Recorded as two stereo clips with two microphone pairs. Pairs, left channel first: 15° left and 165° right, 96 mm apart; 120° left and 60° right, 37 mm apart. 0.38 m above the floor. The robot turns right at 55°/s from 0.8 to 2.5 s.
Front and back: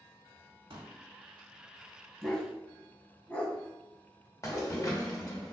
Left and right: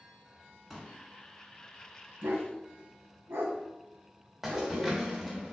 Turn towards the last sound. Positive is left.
turn(degrees=10)